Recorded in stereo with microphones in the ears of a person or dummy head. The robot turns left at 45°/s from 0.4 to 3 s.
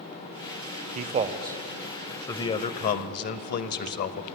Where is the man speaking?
130° right, 0.7 m; by 4.2 s 135° left, 0.7 m.